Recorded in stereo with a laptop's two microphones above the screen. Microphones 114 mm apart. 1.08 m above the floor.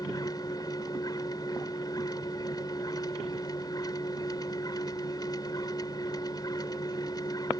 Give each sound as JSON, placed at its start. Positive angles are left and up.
{"t": 0.0, "sound": "a machine running", "side_deg": 35}